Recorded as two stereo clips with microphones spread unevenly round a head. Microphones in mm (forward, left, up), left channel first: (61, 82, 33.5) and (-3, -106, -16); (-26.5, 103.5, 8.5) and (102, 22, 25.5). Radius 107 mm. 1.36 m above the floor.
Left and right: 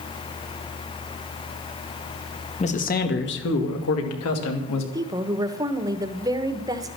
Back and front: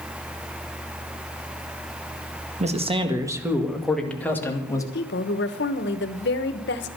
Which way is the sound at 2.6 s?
10° left.